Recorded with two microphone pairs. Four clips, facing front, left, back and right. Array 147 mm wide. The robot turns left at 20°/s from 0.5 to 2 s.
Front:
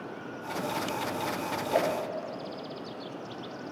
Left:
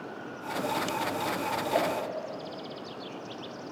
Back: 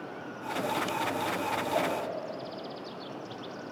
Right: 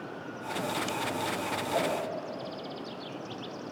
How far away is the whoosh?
About 0.6 m.